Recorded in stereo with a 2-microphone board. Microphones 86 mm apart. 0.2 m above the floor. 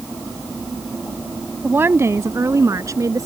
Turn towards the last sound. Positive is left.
turn(degrees=-40)  # may be behind; listen again after turning